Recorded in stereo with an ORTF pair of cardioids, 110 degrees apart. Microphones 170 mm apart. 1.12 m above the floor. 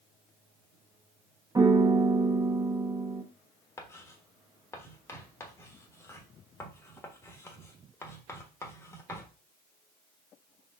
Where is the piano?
20° right, 0.9 m.